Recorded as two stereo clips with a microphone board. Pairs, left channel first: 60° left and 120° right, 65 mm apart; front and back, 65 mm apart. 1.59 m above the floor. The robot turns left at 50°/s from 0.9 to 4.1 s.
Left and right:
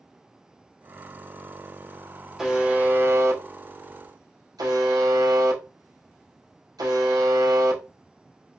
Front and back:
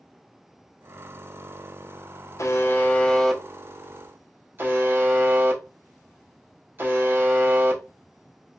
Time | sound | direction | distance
2.4 | a buzzer | 40° right | 0.6 m